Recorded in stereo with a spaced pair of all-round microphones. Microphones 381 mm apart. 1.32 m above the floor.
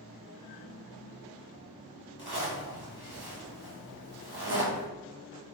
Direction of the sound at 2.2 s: 75° right (ahead or behind).